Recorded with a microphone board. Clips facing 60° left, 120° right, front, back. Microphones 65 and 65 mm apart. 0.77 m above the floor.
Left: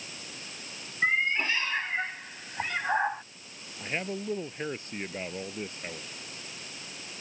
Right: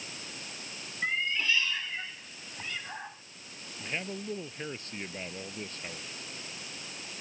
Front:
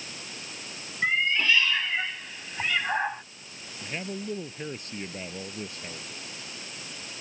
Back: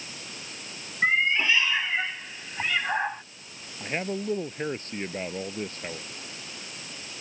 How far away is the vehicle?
I don't hear a vehicle.